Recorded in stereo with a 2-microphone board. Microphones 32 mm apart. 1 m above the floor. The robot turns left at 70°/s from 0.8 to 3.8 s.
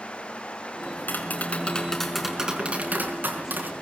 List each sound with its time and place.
0.8 s tapping: 90° left, 5 m; by 3.7 s 115° right, 5 m